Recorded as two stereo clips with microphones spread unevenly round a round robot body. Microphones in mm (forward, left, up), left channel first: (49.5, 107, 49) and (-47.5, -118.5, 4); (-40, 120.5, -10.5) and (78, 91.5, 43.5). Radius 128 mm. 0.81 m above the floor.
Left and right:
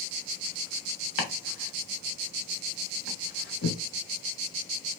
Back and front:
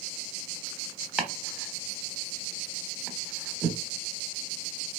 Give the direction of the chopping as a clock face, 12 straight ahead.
10 o'clock.